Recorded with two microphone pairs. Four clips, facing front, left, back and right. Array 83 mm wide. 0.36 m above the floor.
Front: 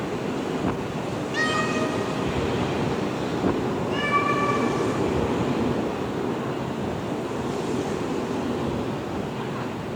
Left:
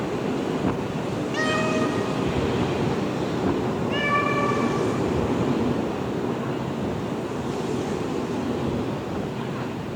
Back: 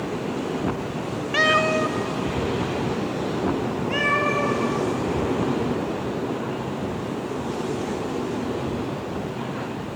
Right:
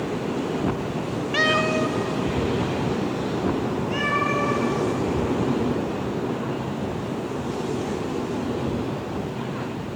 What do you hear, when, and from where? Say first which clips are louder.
1.3 s a cat meowing: right 2 dB, back 5 dB; 150° right, 0.7 m; by 4.6 s 160° left, 4.5 m